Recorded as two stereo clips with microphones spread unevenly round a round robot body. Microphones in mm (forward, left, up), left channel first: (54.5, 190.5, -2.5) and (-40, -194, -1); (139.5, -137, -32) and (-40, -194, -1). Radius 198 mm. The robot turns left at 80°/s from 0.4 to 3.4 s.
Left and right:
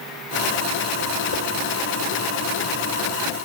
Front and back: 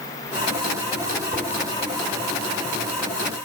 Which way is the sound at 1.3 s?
110° left.